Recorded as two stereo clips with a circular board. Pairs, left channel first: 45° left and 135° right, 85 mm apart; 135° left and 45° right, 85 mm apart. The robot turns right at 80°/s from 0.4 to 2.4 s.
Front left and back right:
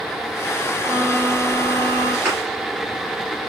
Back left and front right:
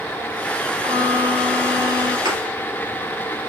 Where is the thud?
60° right, 3 m; by 2.4 s 50° right, 3 m.